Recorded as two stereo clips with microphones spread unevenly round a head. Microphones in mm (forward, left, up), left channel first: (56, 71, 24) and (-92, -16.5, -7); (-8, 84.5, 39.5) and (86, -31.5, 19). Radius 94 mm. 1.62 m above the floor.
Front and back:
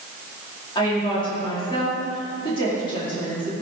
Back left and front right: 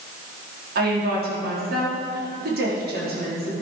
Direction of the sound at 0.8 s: 35° right.